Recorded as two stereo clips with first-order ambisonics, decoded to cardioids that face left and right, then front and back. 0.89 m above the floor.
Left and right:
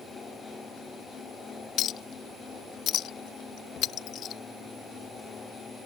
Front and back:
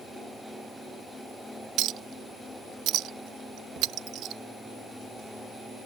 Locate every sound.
1.8 s a clink: 140° left